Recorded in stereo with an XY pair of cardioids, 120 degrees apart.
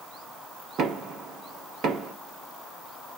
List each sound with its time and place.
0.8 s knocking: 55° right, 1.2 m